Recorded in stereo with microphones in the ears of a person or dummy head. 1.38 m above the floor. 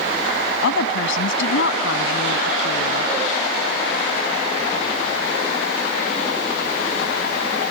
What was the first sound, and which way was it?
A woman speaking, 75° left (ahead or behind).